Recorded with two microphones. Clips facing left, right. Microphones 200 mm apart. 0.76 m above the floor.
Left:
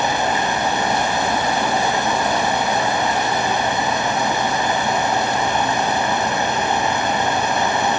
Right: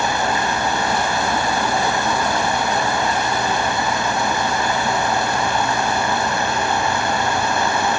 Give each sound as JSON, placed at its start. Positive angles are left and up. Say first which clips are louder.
{"t": 0.0, "sound": "running water", "louder": "left 1 dB", "side_deg": 20, "distance_m": 1.9}